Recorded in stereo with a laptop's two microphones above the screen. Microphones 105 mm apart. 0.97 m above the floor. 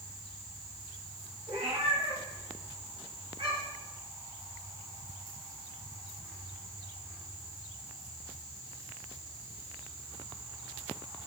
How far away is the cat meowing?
About 2.0 m.